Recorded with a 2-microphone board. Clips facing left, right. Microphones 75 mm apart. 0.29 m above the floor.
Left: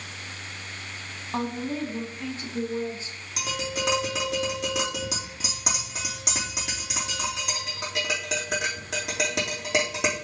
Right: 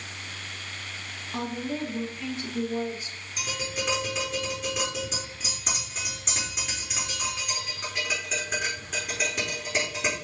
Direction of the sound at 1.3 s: 35° left (ahead or behind).